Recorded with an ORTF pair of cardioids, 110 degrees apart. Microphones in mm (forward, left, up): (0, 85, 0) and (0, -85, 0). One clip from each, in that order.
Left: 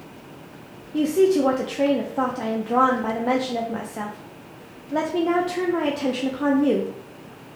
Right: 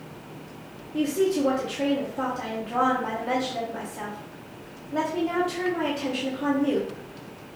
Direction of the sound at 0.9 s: 55° left.